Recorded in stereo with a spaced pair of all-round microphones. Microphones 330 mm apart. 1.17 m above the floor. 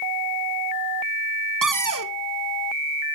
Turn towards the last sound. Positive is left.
turn(degrees=-70)  # may be behind; listen again after turning